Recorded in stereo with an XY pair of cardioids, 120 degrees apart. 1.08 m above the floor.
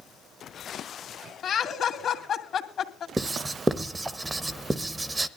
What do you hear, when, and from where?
1.4 s laughter: 50° left, 2 m
3.2 s writing: 20° right, 0.9 m